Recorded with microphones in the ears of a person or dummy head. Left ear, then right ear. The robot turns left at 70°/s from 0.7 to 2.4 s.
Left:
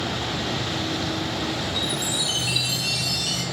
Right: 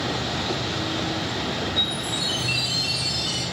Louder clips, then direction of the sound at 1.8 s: Right 1 dB; 90° left.